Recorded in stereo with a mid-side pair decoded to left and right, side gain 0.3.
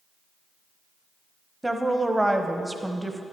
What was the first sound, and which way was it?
A woman speaking, 15° right.